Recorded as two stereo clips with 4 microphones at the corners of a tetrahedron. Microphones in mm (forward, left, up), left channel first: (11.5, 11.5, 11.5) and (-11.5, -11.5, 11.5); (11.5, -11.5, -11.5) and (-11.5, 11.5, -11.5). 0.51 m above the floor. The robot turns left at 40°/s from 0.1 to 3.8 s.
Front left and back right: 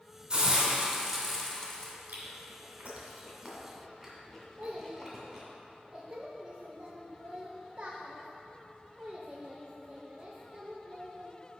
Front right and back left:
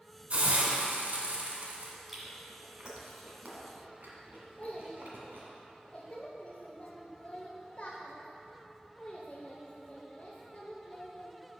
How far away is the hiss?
About 1.6 m.